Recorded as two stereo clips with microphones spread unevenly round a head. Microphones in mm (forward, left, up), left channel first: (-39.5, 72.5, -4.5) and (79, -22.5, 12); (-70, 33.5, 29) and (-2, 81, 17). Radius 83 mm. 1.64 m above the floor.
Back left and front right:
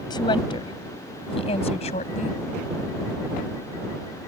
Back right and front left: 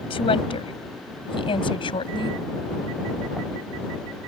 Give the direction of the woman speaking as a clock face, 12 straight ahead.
5 o'clock.